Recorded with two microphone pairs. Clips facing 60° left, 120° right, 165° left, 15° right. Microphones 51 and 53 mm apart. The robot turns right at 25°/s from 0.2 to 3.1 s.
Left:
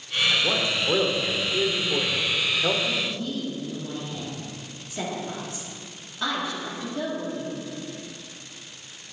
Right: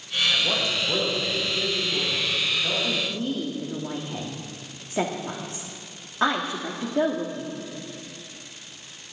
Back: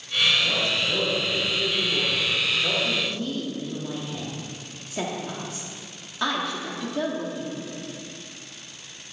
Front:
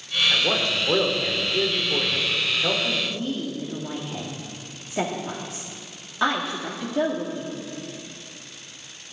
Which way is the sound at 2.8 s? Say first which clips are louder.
Right 1 dB, even; 95° right.